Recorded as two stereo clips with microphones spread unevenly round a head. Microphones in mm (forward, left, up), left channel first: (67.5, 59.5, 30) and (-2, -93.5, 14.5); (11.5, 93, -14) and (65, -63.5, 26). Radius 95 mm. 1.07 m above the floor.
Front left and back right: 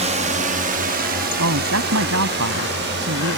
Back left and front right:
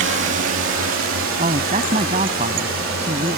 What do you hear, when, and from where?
0.0 s a drone: 70° right; by 3.4 s 100° right
1.4 s a man speaking: 130° right